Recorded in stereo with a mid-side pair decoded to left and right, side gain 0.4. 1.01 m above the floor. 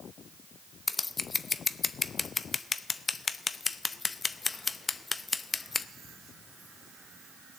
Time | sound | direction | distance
0.9 | scissors | 35° left | 0.6 m